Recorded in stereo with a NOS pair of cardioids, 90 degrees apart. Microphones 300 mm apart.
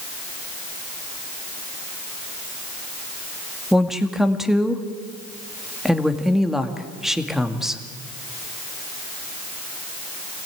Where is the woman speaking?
Straight ahead, 2 m.